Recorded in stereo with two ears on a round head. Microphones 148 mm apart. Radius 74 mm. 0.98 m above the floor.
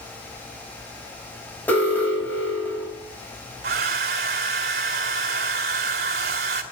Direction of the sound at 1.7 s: 10° left (ahead or behind).